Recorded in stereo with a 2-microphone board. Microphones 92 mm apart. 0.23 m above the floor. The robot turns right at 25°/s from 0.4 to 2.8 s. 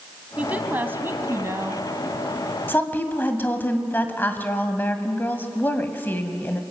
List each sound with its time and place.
0.4 s a woman speaking: 155° right, 1.8 m; by 1.8 s 120° right, 1.8 m
2.7 s a woman speaking: 20° left (ahead or behind), 1.7 m